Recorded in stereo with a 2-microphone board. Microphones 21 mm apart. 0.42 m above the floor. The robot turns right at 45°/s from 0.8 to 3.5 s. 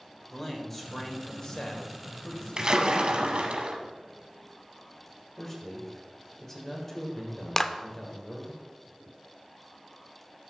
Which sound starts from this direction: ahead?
A man speaking, at 0.3 s.